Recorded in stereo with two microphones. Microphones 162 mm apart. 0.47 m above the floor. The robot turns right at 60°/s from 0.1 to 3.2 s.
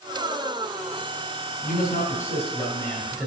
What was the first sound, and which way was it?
A man speaking, 90° left.